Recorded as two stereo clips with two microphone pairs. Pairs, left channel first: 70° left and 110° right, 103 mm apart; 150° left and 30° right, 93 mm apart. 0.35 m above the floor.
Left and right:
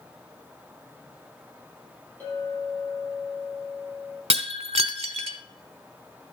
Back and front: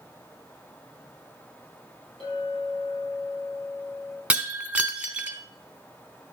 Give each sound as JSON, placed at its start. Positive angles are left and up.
{"t": 2.2, "sound": "a clink", "azimuth_deg": 145, "distance_m": 7.0}
{"t": 4.3, "sound": "breaking glass", "azimuth_deg": -105, "distance_m": 0.9}